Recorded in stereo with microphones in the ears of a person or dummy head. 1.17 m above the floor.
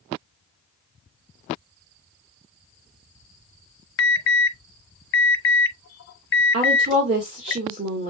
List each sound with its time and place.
4.0 s an alarm: 60° left (ahead or behind), 2 m
6.5 s a woman speaking: 40° right (ahead or behind), 1.8 m